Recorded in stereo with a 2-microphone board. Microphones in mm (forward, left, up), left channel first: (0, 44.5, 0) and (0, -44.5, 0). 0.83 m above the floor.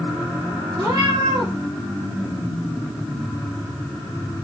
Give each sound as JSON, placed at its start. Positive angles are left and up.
{"t": 0.8, "sound": "a cat meowing", "side_deg": -60, "distance_m": 2.0}